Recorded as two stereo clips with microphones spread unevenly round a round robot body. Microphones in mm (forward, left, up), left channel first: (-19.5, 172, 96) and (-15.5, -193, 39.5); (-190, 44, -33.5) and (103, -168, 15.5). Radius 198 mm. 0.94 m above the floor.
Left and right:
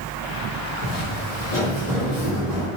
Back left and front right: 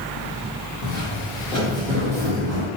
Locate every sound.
0.8 s footsteps: 95° left, 1.3 m; by 2.7 s 15° right, 1.6 m